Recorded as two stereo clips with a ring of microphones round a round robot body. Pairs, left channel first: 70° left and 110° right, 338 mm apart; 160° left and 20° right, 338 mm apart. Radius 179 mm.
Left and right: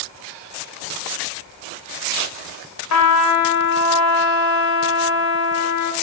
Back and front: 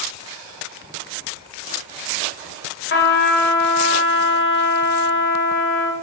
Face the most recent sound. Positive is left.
turn(degrees=100)